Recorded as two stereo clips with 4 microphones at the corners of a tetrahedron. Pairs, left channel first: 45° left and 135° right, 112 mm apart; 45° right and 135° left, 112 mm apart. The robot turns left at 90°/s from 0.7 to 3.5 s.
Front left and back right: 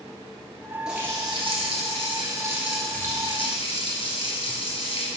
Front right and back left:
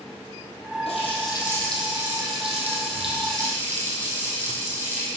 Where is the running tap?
50° right, 2.0 m; by 5.1 s 70° left, 2.0 m.